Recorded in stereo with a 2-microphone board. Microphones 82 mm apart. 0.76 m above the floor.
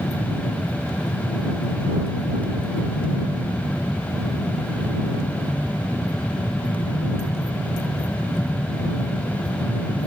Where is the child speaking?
I don't hear a child speaking.